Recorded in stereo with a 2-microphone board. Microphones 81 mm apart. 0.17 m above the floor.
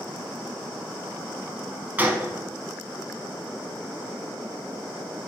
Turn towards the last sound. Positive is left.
turn(degrees=-20)  # may be behind; listen again after turning